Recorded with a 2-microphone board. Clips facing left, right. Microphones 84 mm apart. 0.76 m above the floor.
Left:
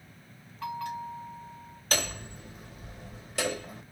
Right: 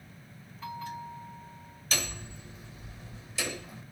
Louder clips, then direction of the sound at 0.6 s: Left 4 dB; 75° left (ahead or behind).